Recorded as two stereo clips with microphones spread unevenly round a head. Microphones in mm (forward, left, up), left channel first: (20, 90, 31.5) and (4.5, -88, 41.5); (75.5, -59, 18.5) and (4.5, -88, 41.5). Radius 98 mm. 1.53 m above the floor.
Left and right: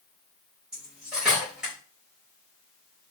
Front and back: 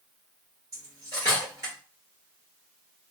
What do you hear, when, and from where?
0.7 s cutlery clinking: straight behind, 1.2 m